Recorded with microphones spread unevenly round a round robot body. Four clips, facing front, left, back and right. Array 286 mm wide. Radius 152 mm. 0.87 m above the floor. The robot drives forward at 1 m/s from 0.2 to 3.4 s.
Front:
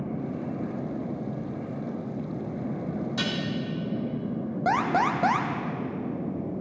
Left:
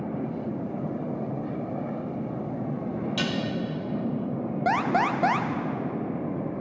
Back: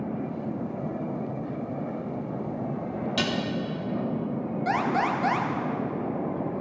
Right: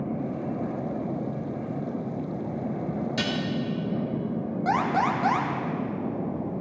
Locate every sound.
3.2 s dishes clattering: 160° right, 1.2 m; by 3.4 s 165° right, 1.5 m
4.7 s an alarm: 55° left, 0.6 m